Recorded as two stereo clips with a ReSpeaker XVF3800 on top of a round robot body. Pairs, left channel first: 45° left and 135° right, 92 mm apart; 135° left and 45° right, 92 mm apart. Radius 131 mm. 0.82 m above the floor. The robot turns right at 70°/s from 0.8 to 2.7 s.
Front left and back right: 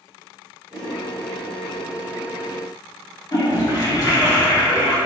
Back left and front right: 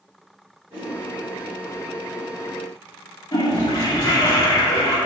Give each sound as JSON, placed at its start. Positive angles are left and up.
{"t": 0.7, "sound": "a whoosh", "azimuth_deg": -75, "distance_m": 1.2}
{"t": 3.3, "sound": "a toilet flushing", "azimuth_deg": 90, "distance_m": 1.8}